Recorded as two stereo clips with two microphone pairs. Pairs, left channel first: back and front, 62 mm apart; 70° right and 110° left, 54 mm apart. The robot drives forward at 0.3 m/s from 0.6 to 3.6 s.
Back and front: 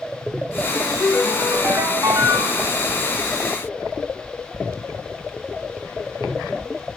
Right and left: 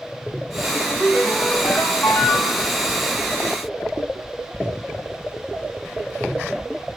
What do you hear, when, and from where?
0.7 s a ringtone: 15° right, 1.1 m; by 2.7 s 35° right, 0.6 m